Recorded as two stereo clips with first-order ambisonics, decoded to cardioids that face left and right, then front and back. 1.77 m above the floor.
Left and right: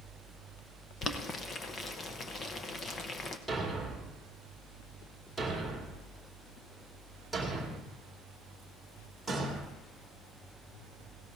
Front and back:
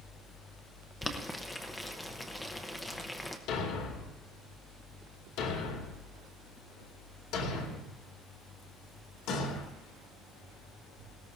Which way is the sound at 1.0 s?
65° left.